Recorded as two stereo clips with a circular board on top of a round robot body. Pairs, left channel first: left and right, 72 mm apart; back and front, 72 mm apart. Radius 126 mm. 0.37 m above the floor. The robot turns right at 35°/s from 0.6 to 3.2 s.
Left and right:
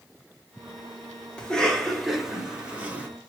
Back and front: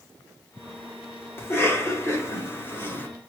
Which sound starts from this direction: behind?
A cough, at 1.4 s.